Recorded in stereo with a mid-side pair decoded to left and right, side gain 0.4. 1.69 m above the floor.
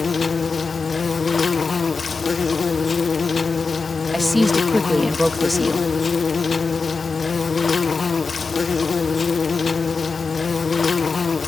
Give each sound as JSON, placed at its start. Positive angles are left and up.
{"t": 0.0, "sound": "an insect", "azimuth_deg": 35}
{"t": 4.1, "sound": "a woman speaking", "azimuth_deg": 5}